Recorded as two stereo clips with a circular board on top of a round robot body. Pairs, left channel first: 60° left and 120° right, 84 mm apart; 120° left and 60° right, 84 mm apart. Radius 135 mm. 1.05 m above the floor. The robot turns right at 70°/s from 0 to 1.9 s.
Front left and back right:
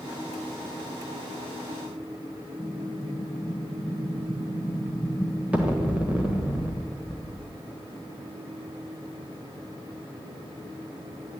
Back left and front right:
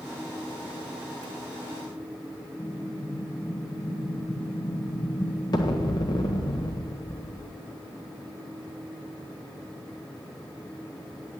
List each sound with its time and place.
2.6 s an explosion: 165° left, 1.2 m